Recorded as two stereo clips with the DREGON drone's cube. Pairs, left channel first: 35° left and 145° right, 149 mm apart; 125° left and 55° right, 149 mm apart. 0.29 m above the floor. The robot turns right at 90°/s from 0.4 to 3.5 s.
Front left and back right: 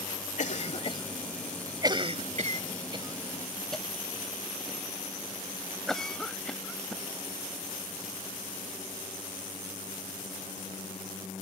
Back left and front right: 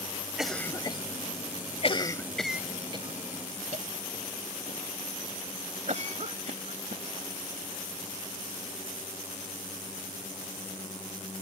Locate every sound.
0.4 s a cough: 30° left; by 7.0 s 50° right